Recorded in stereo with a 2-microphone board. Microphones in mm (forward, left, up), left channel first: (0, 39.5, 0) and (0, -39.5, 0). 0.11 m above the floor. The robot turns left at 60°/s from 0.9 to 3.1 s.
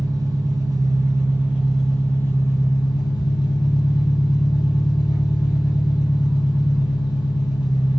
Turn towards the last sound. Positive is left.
turn(degrees=100)